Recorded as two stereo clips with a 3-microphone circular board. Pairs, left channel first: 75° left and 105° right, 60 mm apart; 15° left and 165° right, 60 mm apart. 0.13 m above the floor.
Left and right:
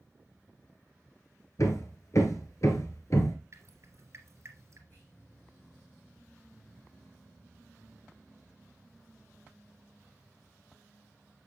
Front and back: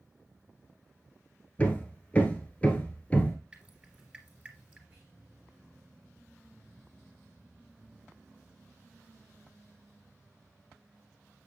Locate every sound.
1.6 s hammering: 80° left, 1.6 m
3.5 s dripping: 100° right, 2.5 m
4.9 s whispering: 125° left, 5 m